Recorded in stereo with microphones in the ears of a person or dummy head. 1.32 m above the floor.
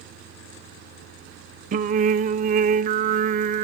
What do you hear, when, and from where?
1.7 s singing: 45° right (ahead or behind), 0.6 m